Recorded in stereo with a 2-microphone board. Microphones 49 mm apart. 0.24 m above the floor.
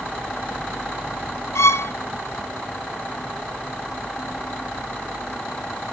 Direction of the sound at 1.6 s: 80° left.